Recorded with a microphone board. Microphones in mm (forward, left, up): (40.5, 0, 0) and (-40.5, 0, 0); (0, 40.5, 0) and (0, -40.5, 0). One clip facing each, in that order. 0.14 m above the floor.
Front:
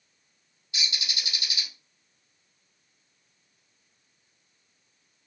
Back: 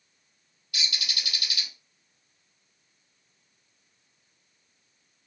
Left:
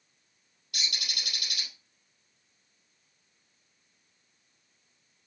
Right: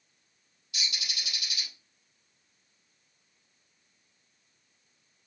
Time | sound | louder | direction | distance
0.7 | a bird | even, left 1 dB | 65° left | 3 m